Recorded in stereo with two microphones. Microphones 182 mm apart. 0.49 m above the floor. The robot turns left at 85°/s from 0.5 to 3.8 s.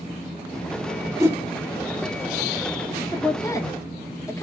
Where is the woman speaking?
15° left (ahead or behind), 0.6 m.